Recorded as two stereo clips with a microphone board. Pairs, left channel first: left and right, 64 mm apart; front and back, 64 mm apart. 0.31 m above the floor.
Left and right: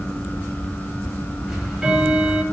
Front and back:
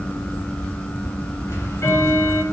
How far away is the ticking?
About 1.6 m.